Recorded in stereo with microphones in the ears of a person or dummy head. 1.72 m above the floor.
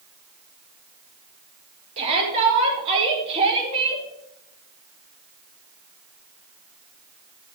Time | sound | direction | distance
2.0 | a shout | 35° right (ahead or behind) | 4.5 m